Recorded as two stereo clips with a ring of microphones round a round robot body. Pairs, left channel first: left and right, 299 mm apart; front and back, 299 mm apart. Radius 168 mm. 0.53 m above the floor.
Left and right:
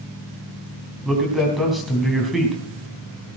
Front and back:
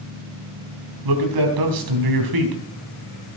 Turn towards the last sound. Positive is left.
turn(degrees=180)